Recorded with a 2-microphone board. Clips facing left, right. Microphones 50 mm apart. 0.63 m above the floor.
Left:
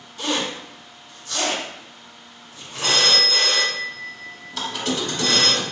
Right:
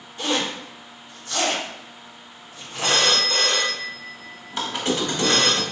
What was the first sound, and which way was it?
A zipper, 25° right (ahead or behind).